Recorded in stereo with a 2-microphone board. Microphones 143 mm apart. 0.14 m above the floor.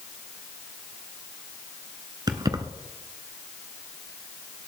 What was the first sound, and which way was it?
Keys jangling, 30° right (ahead or behind).